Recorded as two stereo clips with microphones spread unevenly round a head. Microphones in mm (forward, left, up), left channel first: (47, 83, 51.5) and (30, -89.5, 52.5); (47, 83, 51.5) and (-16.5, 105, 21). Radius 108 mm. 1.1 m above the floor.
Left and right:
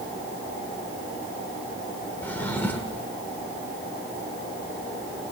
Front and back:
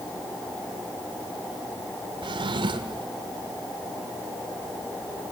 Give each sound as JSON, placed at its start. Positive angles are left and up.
{"t": 2.2, "sound": "a drawer", "azimuth_deg": 165, "distance_m": 1.2}